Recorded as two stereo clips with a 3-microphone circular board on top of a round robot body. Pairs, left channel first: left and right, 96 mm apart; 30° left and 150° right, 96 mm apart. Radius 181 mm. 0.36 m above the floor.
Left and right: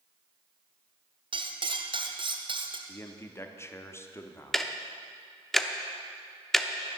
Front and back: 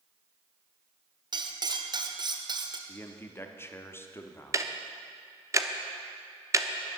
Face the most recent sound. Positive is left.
turn(degrees=175)